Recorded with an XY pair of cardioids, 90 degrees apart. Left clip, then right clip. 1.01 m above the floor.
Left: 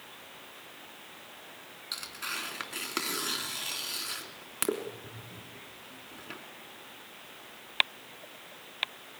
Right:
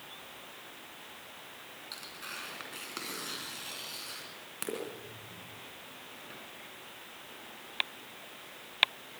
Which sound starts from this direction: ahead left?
Tearing paper, at 1.9 s.